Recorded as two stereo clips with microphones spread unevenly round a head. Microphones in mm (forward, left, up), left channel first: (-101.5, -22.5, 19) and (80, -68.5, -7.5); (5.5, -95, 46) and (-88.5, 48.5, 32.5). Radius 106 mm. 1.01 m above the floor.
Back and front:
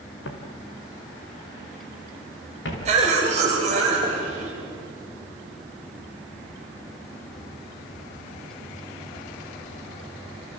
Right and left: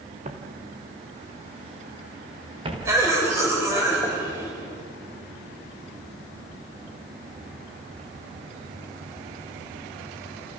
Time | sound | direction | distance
0.2 | footsteps | 175° left | 3.5 m
2.9 | a cough | 45° left | 5.5 m